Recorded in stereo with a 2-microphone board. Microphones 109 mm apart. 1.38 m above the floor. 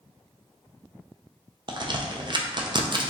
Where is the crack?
45° right (ahead or behind), 0.5 m.